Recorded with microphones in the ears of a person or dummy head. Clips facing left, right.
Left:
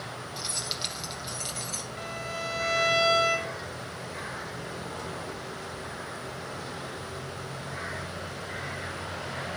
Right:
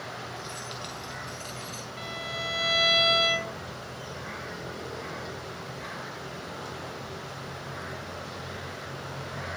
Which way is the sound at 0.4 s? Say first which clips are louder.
Even; 40° left (ahead or behind).